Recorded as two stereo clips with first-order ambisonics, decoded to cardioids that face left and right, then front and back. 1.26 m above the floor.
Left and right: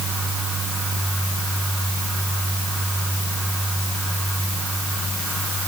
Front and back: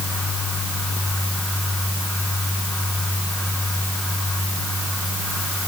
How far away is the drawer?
I don't hear a drawer.